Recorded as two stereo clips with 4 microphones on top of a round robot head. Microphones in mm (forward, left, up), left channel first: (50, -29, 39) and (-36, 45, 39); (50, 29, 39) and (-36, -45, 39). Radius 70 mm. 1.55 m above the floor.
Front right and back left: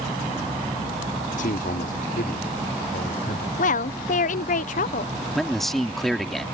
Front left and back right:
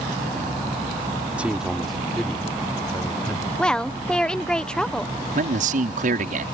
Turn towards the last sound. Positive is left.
turn(degrees=-130)